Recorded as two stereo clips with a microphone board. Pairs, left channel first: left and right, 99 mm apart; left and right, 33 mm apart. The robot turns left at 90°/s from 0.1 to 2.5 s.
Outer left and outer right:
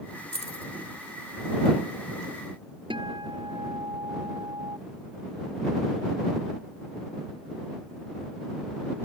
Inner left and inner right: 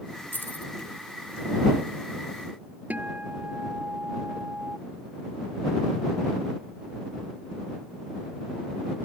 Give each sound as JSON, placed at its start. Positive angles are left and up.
{"t": 0.3, "sound": "keys jangling", "side_deg": 80}
{"t": 2.9, "sound": "a guitar", "side_deg": -55}